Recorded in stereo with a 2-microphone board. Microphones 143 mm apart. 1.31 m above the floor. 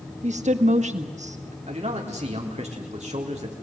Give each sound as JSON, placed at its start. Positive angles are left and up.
{"t": 0.2, "sound": "a woman speaking", "side_deg": -60, "distance_m": 1.5}
{"t": 1.7, "sound": "a man speaking", "side_deg": -55, "distance_m": 4.0}